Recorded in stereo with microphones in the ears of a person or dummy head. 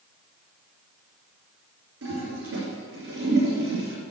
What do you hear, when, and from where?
2.0 s a toilet flushing: 70° right (ahead or behind), 3.5 m